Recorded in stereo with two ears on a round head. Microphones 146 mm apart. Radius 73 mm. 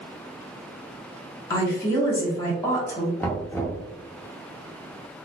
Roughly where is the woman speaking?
Centre.